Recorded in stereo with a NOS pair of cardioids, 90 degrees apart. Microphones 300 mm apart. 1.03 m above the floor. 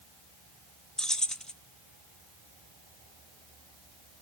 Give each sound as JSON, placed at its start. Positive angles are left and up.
{"t": 1.0, "sound": "keys jangling", "azimuth_deg": 0, "distance_m": 0.9}